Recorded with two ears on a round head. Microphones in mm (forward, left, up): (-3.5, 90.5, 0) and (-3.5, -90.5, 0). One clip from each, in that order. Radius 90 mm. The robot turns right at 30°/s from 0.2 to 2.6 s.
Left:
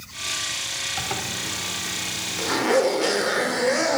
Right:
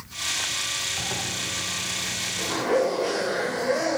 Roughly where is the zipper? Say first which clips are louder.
Left 1 dB; left.